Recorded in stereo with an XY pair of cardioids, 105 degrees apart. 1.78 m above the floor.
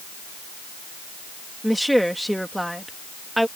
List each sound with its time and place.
1.6 s a woman speaking: straight ahead